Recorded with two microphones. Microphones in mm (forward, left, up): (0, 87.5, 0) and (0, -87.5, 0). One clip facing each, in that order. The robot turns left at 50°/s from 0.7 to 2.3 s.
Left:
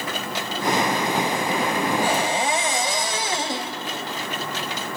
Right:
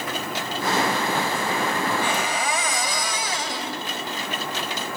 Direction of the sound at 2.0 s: 40° left (ahead or behind).